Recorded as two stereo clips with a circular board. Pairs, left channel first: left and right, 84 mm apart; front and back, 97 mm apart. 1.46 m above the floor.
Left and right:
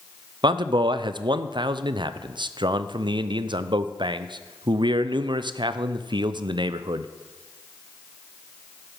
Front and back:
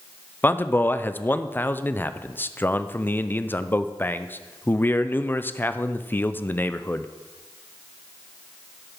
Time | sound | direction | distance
0.4 | a man speaking | 70° right | 0.5 m